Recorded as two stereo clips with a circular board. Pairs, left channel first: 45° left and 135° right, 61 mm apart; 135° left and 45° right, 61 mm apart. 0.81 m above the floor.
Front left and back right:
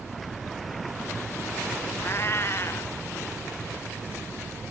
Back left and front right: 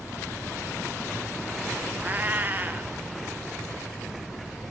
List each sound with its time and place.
2.0 s a cat meowing: 10° left, 1.3 m